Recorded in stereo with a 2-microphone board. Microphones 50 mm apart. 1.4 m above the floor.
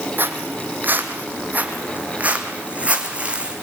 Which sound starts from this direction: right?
Footsteps, at 0.2 s.